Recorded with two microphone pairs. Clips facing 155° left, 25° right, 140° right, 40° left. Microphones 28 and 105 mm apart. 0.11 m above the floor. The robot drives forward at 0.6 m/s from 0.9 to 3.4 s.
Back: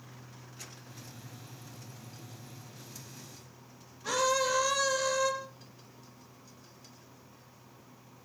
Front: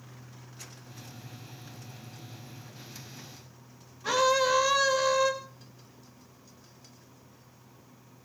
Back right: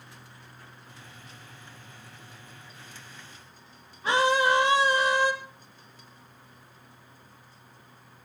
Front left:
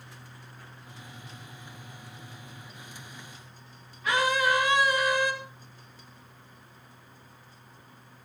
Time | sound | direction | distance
4.0 | a scream | 90° right | 3 m